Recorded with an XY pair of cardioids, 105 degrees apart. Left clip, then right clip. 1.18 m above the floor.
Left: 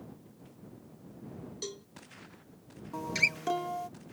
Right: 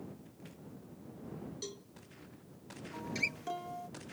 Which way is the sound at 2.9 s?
55° left.